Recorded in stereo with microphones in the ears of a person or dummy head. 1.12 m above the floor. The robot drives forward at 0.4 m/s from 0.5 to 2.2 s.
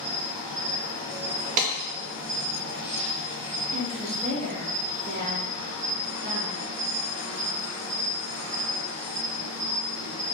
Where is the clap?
40° right (ahead or behind), 0.6 m.